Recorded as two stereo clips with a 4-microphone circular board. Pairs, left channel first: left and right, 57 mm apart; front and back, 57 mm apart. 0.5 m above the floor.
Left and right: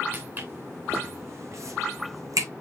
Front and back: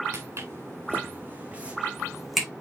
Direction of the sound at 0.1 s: 145° right.